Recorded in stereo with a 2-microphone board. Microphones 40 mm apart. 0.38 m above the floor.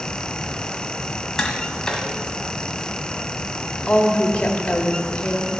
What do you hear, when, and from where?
1.4 s tapping: 10° left (ahead or behind), 1.7 m
3.9 s a woman speaking: 25° left (ahead or behind), 1.4 m